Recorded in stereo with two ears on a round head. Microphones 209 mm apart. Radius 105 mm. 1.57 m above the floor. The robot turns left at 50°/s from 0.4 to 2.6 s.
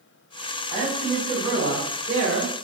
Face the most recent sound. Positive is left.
turn(degrees=-80)